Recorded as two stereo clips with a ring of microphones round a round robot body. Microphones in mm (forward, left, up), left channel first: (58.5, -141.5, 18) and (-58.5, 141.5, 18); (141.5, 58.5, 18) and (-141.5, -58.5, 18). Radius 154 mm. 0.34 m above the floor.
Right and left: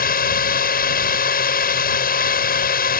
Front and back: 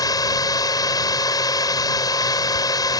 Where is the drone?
45° right.